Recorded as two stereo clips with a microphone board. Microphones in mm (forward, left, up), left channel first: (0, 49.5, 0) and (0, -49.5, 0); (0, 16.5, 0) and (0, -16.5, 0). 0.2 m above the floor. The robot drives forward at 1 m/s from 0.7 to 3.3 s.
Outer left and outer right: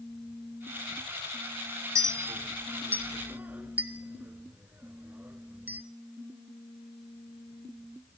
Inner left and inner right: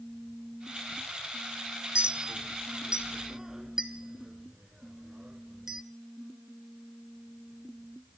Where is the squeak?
I don't hear a squeak.